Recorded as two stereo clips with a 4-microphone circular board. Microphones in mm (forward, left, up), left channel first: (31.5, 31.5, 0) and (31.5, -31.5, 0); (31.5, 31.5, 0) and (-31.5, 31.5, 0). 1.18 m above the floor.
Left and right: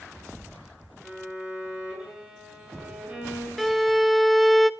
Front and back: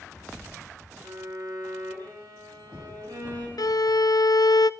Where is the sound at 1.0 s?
165° right, 8 m.